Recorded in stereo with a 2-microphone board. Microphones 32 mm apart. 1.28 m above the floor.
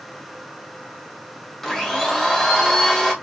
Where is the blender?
10° left (ahead or behind), 0.8 m.